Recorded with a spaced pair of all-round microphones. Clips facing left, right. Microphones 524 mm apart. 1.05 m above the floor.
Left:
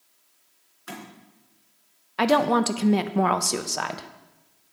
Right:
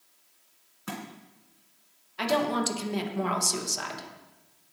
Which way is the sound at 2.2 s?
75° left (ahead or behind).